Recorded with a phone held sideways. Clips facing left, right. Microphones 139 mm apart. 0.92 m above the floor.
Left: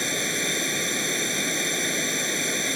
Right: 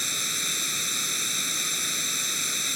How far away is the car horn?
No car horn in this recording.